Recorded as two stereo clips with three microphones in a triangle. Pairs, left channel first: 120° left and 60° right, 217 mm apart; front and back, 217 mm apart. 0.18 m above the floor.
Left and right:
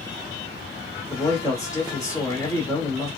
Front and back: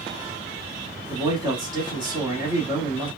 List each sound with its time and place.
1.1 s a man speaking: 165° left, 1.0 m